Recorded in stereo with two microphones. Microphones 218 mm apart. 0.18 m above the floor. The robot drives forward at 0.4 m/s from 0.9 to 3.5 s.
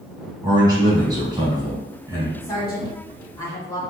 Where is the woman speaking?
20° left (ahead or behind), 1.5 m; by 3.8 s 15° left (ahead or behind), 1.7 m.